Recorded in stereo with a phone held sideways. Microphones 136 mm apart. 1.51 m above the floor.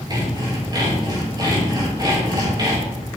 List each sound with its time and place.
0.1 s sawing: 30° right (ahead or behind), 6 m